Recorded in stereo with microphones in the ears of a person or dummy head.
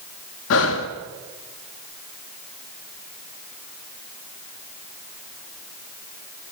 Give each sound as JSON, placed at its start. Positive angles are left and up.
{"t": 0.5, "sound": "breathing", "side_deg": 75, "distance_m": 1.8}